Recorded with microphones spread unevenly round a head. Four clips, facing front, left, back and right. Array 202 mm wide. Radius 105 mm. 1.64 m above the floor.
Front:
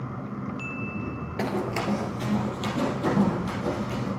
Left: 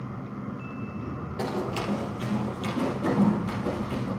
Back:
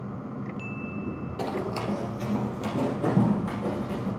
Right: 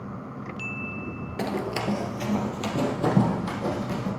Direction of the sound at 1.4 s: 45° right.